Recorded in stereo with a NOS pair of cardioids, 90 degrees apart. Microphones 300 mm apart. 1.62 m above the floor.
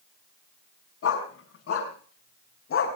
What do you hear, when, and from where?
1.0 s a dog barking: 55° left, 5.5 m; by 3.0 s 50° left, 4.5 m